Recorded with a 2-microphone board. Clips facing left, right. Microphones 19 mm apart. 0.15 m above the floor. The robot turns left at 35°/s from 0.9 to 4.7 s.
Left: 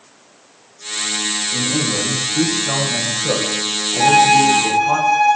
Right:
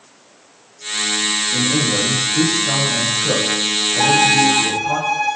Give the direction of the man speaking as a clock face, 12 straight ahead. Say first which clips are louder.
Right 1 dB; 5 o'clock.